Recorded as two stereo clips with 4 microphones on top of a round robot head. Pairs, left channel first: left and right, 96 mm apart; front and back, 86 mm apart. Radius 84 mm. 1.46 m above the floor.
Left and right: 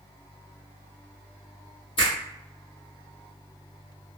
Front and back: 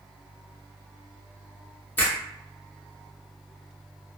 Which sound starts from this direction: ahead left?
A finger snap, at 2.0 s.